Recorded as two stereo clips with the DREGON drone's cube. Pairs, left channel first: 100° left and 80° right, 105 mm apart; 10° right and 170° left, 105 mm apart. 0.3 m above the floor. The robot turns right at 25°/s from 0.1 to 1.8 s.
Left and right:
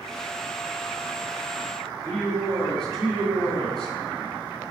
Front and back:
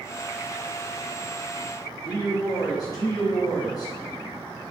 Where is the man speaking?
20° left, 1.9 m.